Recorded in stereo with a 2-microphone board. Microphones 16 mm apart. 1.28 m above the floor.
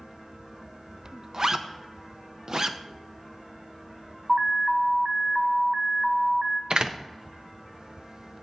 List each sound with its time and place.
1.3 s a zipper: 35° right (ahead or behind), 0.6 m
4.3 s an alarm: 30° right (ahead or behind), 0.8 m
6.7 s a door slam: 50° right (ahead or behind), 0.6 m